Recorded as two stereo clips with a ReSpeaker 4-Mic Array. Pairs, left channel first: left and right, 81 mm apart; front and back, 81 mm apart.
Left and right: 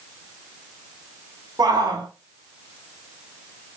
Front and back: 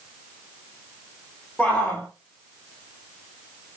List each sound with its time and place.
1.6 s a shout: 85° right, 2.5 m